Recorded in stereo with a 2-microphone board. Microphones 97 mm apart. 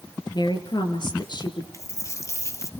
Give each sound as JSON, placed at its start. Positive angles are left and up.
{"t": 0.3, "sound": "a woman speaking", "side_deg": 50, "distance_m": 4.5}
{"t": 1.7, "sound": "a dropped coin", "side_deg": 30, "distance_m": 2.5}